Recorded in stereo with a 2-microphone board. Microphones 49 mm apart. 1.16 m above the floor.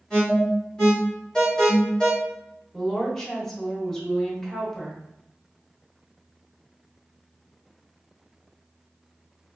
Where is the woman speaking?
10° left (ahead or behind), 1.0 m.